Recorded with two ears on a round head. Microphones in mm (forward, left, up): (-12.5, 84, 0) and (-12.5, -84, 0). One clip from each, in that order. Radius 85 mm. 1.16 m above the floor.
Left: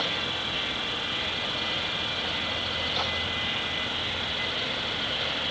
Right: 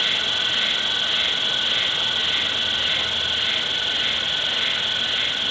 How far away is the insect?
About 1.3 m.